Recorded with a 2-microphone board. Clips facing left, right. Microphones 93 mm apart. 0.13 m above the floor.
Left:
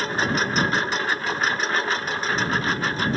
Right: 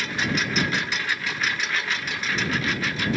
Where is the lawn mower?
35° left (ahead or behind).